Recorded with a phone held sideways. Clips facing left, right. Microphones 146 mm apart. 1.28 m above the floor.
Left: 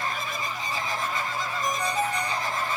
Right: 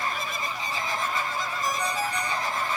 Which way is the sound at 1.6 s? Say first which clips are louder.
Left 2 dB; 55° left (ahead or behind).